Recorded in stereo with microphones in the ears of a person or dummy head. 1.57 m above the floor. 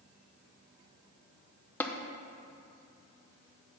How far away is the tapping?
About 0.8 m.